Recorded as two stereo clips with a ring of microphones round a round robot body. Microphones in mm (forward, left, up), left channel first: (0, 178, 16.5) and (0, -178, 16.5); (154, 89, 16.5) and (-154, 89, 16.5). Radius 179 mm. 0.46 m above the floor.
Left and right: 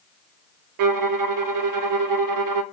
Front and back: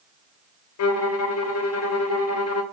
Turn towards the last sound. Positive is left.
turn(degrees=-50)